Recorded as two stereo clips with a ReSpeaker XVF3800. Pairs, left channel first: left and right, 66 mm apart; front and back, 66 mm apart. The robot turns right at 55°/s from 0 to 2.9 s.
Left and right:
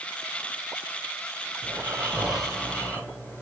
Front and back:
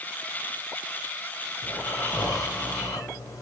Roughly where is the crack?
No crack in this recording.